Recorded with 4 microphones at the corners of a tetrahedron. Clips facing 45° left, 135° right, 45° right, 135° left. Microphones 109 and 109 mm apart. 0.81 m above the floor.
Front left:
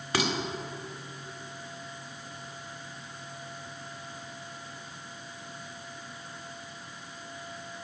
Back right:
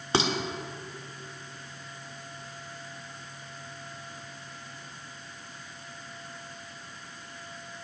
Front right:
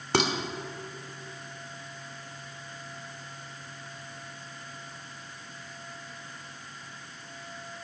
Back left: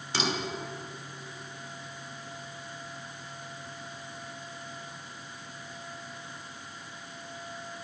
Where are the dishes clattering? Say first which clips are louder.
Back right 3 dB, front right 5 dB; 75° right, 1.7 m.